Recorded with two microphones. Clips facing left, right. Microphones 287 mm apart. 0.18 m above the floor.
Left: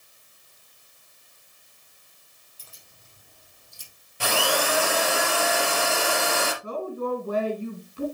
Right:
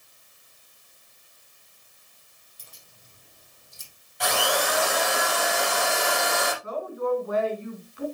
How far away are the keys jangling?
About 4.5 m.